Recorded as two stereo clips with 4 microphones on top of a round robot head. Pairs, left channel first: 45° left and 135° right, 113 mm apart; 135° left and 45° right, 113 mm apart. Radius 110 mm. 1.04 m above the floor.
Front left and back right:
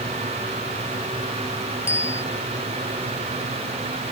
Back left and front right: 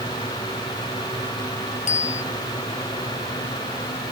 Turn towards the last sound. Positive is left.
turn(degrees=115)